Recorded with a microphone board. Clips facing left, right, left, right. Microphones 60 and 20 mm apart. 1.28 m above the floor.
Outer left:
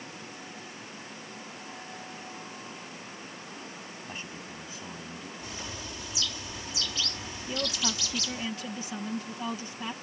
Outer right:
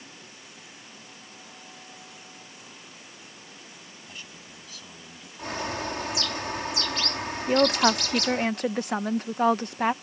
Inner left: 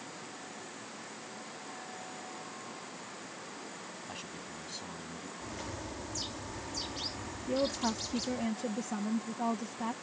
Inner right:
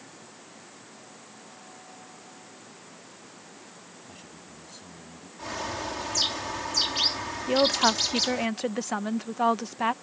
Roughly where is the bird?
Right.